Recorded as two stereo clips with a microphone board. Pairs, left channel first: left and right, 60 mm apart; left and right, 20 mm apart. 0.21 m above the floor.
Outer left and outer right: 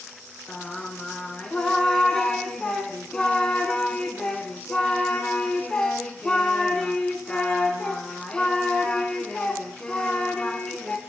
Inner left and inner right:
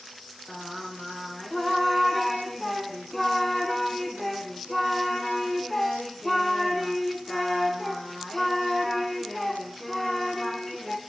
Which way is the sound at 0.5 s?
15° left (ahead or behind).